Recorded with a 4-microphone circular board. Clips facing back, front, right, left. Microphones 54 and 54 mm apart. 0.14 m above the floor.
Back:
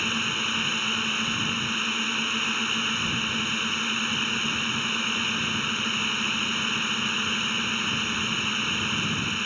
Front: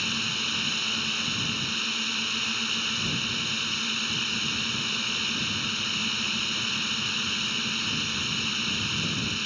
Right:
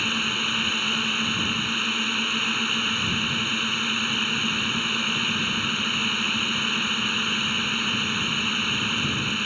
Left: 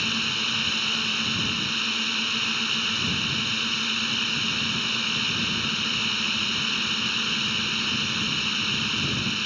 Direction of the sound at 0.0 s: 150° right.